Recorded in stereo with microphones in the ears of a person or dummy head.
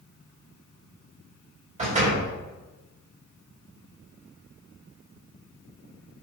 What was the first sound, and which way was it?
A door slam, 35° right (ahead or behind).